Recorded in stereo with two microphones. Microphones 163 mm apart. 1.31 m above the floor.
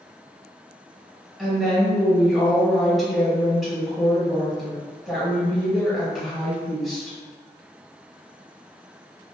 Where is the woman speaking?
Centre (ahead or behind), 1.2 m.